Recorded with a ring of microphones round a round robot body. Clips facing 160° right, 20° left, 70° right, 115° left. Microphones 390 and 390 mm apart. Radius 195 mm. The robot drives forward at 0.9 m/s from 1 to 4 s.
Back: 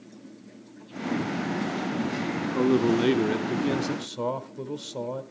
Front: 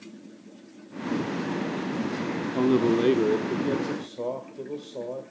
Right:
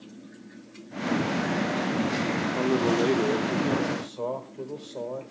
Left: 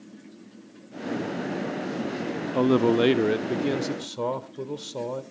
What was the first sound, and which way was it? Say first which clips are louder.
A man speaking: even, left 5 dB; 95° left.